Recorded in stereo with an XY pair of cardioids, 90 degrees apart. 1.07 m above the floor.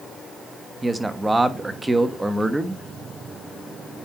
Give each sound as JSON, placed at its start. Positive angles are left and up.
{"t": 0.8, "sound": "a man speaking", "azimuth_deg": -20, "distance_m": 1.4}